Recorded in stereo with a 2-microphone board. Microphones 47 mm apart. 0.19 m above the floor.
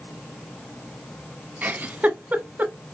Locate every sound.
1.6 s a giggle: 35° right (ahead or behind), 0.8 m